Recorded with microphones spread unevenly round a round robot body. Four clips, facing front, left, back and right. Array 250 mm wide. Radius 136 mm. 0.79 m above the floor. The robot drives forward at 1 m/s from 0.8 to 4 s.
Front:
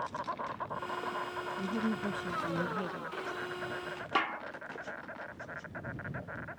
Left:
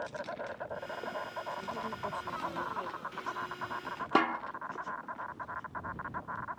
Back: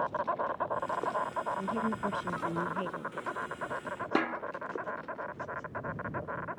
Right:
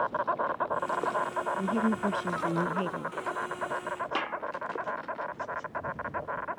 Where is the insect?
110° right; by 6.6 s 150° right.